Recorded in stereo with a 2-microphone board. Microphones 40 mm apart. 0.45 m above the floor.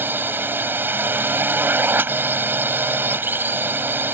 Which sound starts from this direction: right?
A drone, at 0.0 s.